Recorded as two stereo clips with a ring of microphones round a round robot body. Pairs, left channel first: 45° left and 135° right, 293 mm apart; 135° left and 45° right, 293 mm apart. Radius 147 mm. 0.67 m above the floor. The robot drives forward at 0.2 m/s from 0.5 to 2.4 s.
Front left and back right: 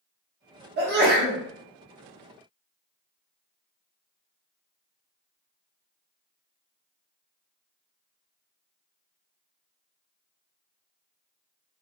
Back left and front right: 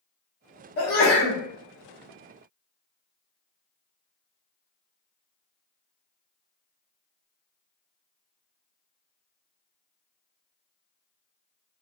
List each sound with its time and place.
0.8 s a sneeze: 170° left, 1.1 m; by 1.4 s 175° left, 1.2 m